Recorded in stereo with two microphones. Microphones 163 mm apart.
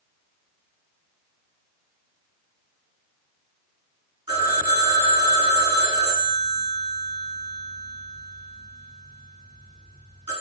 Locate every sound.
4.3 s a phone ringing: 30° right (ahead or behind), 1.8 m